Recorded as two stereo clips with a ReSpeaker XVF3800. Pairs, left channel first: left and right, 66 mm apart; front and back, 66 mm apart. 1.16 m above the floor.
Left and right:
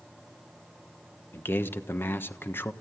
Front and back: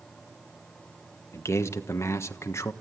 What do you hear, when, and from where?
1.3 s a man speaking: 40° left, 1.3 m